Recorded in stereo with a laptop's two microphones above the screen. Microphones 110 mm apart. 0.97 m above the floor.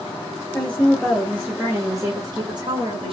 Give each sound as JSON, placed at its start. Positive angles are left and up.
{"t": 0.5, "sound": "a woman speaking", "side_deg": 10, "distance_m": 1.2}